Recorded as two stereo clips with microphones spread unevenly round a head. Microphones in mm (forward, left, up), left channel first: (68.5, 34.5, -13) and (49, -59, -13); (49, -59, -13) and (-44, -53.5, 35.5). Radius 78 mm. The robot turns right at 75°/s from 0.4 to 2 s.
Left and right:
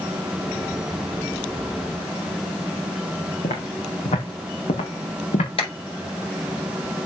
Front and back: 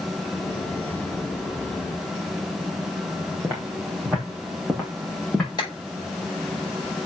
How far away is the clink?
I don't hear a clink.